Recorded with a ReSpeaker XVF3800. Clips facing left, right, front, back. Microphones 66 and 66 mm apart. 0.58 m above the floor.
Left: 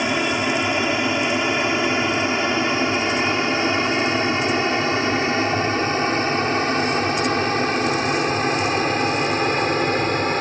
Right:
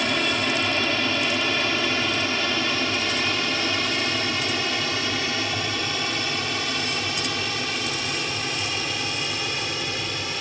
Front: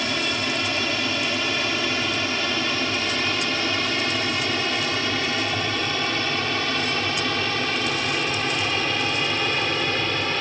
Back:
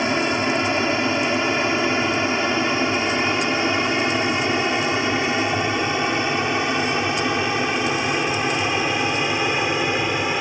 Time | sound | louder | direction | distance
0.0 | an aircraft | left 3 dB, back 5 dB | 150° left | ?